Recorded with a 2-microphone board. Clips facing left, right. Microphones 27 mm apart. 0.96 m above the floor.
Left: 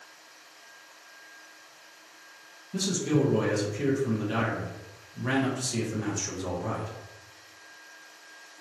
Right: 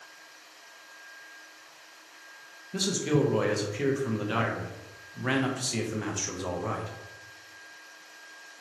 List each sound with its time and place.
2.7 s a man speaking: 25° right (ahead or behind), 0.6 m